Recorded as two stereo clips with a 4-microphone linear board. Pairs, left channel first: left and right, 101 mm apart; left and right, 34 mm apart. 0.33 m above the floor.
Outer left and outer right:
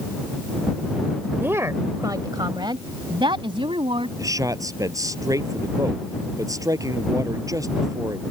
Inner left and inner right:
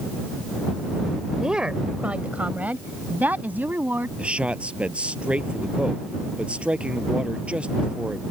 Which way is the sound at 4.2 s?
35° right (ahead or behind).